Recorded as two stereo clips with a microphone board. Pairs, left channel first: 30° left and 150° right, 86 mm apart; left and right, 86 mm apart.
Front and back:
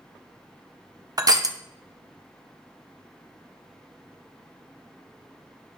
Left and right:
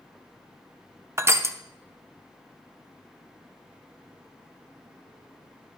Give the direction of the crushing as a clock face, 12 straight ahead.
4 o'clock.